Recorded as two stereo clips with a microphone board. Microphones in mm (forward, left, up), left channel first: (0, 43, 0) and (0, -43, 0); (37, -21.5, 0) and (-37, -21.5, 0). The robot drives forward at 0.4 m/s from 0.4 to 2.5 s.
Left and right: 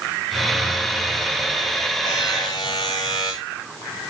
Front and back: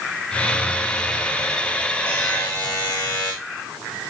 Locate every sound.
2.0 s a buzzer: 65° left, 5.5 m